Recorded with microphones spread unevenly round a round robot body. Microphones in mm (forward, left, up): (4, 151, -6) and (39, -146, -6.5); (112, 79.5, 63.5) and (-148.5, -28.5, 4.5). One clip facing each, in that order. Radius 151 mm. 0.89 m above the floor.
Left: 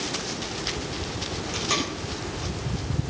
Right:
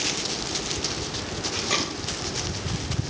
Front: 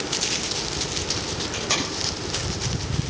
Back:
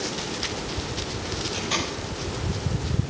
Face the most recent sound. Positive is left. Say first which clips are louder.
# left 1 dB, front 1 dB
turn(degrees=15)